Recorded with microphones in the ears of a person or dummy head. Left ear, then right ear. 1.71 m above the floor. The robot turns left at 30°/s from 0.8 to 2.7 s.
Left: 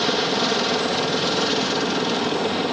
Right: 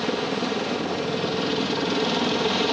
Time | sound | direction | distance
0.0 | a helicopter | 45° left | ?